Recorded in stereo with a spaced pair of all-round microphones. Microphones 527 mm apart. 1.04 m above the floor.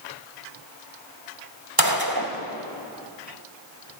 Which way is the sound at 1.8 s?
40° right (ahead or behind).